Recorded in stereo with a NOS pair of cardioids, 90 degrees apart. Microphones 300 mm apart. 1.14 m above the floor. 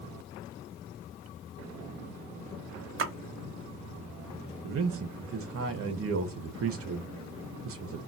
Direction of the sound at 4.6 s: 50° right.